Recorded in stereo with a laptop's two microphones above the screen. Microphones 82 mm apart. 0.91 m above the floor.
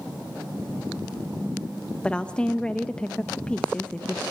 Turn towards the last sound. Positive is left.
turn(degrees=15)  # may be behind; listen again after turning